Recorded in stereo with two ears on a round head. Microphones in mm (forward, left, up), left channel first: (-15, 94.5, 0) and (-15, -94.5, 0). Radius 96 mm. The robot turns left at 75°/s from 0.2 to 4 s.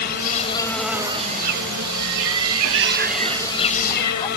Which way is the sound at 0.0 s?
45° left.